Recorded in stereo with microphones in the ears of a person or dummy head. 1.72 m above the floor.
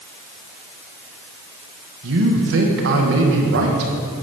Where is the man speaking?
70° right (ahead or behind), 1.6 m.